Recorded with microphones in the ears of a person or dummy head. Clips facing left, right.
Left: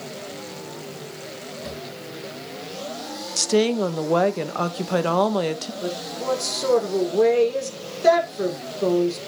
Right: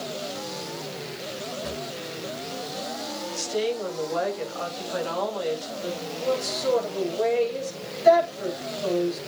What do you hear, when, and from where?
1.6 s a drawer: 5° left (ahead or behind), 2.5 m
3.4 s a woman speaking: 70° left (ahead or behind), 1.6 m
5.8 s a woman speaking: 80° left, 6.5 m